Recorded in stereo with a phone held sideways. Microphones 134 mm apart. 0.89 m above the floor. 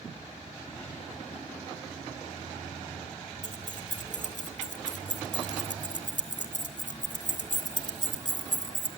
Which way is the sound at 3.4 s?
70° left (ahead or behind).